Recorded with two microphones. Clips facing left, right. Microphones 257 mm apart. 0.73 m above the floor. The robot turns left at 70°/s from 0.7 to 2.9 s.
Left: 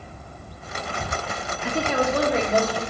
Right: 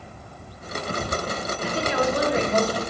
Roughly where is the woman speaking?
Left.